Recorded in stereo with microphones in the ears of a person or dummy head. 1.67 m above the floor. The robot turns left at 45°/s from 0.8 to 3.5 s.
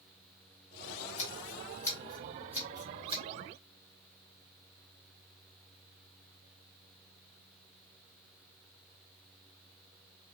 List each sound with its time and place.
1.2 s scissors: 35° left (ahead or behind), 1.3 m; by 3.2 s 40° right (ahead or behind), 1.3 m